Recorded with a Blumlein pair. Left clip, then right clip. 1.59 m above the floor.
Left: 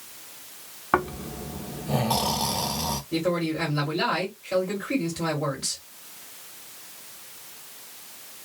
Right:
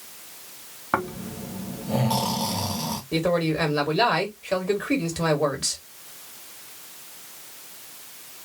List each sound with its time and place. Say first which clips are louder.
0.9 s snoring: left 2 dB; 10° left, 0.6 m
3.1 s a man speaking: right 4 dB; 70° right, 1.4 m